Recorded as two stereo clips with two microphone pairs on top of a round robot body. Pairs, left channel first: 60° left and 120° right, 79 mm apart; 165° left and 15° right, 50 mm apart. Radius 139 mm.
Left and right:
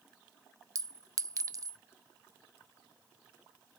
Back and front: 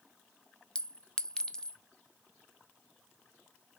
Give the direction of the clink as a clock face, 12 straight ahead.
4 o'clock.